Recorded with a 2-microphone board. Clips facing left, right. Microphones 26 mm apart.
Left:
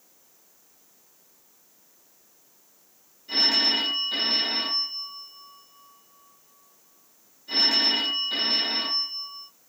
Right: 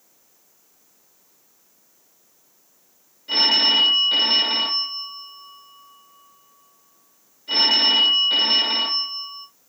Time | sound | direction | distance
3.3 | a phone ringing | 35° right (ahead or behind) | 1.2 m